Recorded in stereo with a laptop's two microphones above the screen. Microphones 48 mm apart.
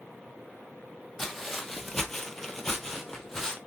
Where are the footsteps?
5° left (ahead or behind), 1.4 m.